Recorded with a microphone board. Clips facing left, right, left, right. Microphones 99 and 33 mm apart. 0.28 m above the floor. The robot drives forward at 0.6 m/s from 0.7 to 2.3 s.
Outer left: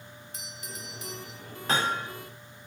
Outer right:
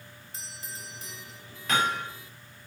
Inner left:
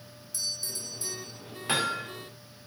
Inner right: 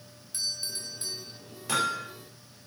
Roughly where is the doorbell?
Right.